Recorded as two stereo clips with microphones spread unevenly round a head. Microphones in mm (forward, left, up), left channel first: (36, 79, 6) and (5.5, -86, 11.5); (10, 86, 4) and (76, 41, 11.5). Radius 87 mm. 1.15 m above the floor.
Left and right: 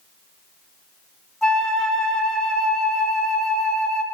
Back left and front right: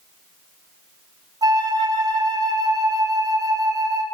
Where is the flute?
5° right, 1.0 m.